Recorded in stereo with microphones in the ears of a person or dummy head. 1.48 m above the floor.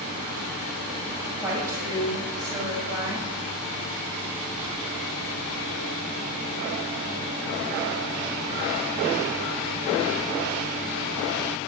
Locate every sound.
1.3 s a woman speaking: 20° right (ahead or behind), 7 m; by 3.3 s 25° right (ahead or behind), 6 m